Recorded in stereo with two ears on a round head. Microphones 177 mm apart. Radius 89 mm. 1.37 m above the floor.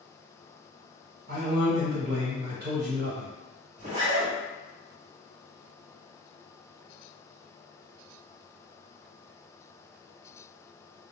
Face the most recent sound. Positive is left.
turn(degrees=-40)  # may be behind; listen again after turning